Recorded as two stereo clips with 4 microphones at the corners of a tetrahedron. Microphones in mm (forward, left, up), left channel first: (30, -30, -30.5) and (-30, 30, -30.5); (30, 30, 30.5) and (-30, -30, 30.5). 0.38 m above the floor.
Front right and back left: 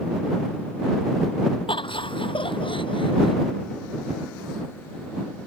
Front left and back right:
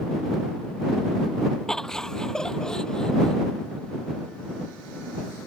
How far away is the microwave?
No microwave in this recording.